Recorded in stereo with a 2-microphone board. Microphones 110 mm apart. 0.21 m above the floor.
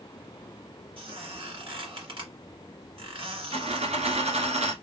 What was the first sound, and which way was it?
A squeak, 50° right (ahead or behind).